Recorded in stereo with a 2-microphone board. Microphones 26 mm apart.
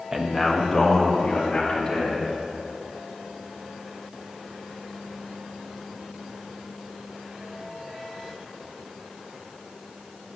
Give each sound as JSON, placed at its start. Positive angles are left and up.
{"t": 0.1, "sound": "a man speaking", "side_deg": -25, "distance_m": 0.7}